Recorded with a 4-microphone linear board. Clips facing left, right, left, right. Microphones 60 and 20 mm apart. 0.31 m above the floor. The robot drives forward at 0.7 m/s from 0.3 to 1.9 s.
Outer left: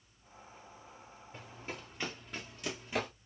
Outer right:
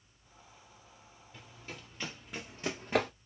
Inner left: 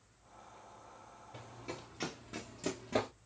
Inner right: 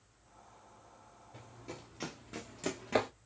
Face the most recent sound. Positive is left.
turn(degrees=-65)  # may be behind; listen again after turning